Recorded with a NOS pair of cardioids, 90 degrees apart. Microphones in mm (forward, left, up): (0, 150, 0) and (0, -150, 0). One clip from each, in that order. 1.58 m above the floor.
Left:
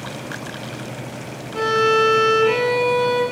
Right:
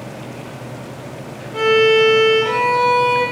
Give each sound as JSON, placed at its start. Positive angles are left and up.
{"t": 1.5, "sound": "a violin", "azimuth_deg": -15, "distance_m": 1.0}